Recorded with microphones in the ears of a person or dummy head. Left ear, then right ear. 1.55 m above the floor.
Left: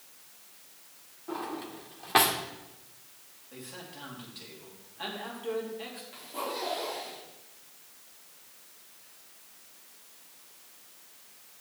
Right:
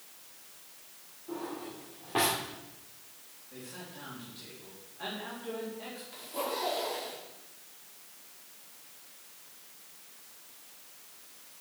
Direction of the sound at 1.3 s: 45° left (ahead or behind).